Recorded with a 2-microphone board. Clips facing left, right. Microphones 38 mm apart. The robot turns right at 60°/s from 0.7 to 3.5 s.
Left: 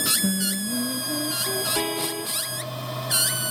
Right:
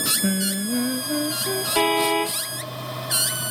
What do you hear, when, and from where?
0.2 s singing: 70° right; by 1.6 s 15° right
1.8 s a car horn: 145° right; by 2.4 s 105° right